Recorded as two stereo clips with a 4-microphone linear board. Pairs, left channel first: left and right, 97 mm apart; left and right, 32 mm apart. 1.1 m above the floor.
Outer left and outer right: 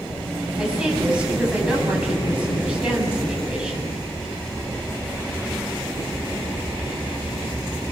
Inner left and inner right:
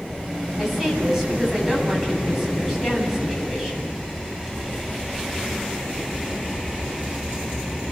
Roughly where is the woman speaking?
Centre.